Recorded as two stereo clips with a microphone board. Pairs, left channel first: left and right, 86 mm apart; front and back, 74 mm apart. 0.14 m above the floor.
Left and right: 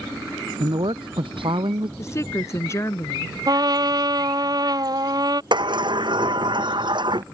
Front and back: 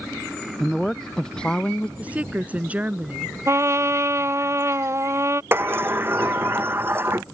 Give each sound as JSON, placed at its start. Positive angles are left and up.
{"t": 0.6, "sound": "a woman speaking", "azimuth_deg": -85}
{"t": 2.0, "sound": "a woman speaking", "azimuth_deg": 120}
{"t": 3.5, "sound": "a trumpet", "azimuth_deg": -130}
{"t": 5.5, "sound": "a sliding door", "azimuth_deg": -120}